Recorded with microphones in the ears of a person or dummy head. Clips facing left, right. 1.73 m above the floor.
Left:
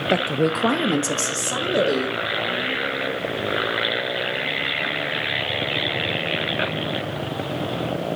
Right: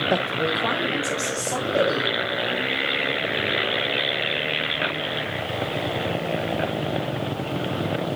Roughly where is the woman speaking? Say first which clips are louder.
Left 5 dB; centre.